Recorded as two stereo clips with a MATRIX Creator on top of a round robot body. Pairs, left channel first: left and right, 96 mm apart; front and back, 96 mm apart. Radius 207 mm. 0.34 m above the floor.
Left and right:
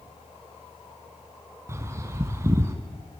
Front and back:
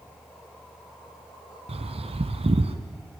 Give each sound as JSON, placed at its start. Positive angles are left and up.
{"t": 1.7, "sound": "a bird", "azimuth_deg": -155, "distance_m": 0.9}